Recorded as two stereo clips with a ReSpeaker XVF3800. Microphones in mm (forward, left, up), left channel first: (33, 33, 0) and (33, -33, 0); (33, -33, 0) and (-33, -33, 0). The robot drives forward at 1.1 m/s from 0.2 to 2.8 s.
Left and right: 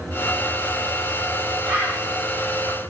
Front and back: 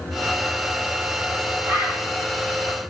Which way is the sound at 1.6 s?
170° right.